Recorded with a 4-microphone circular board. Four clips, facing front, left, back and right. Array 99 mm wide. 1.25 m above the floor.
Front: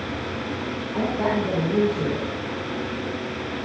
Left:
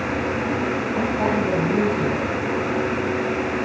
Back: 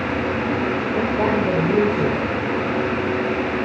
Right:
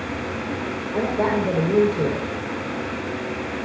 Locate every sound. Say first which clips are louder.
0.9 s a woman speaking: right 3 dB, back 1 dB; 140° right, 4.5 m